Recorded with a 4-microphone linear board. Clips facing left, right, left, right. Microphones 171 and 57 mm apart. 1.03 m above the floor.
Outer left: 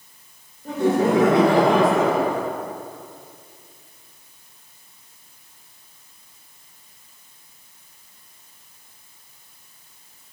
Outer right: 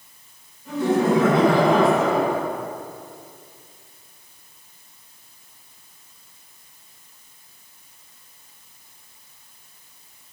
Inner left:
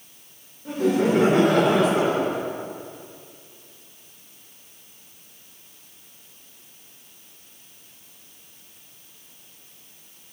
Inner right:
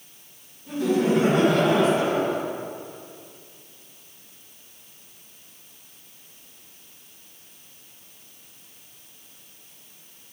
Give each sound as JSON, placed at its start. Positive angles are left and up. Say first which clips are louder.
{"t": 0.7, "sound": "laughter", "louder": "outer left 1 dB, inner left 1 dB", "side_deg": 55, "distance_m": 3.0}